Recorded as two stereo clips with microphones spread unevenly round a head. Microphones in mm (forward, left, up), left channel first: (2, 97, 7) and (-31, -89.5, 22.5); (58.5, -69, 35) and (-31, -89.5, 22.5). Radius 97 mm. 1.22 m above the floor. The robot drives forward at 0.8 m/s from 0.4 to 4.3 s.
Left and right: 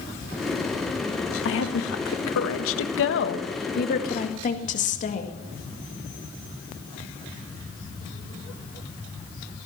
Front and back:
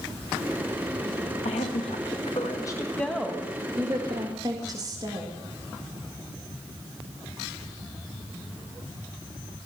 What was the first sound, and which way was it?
A woman speaking, 50° left.